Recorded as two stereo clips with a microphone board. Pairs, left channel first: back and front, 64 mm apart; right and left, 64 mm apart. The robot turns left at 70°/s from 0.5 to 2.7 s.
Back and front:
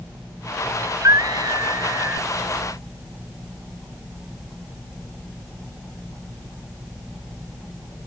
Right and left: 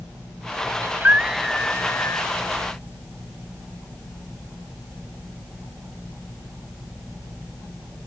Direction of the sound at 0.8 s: 45° left.